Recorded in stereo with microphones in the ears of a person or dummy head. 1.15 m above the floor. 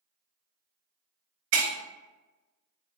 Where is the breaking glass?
80° right, 0.9 m.